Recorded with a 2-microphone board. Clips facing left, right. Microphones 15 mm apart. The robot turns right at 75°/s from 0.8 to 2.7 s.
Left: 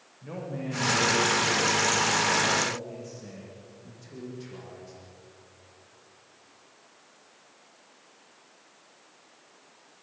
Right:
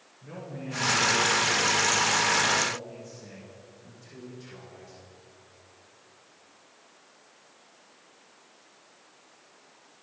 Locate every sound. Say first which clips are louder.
0.2 s a man speaking: left 4 dB; 25° left, 6.5 m; by 5.0 s 170° left, 6.5 m